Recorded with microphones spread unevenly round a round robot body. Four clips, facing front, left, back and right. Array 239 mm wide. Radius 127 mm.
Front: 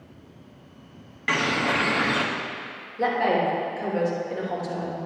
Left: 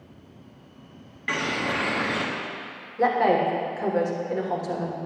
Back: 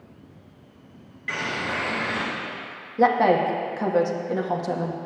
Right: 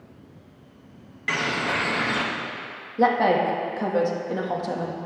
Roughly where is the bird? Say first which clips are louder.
Right 1 dB, front 5 dB; ahead.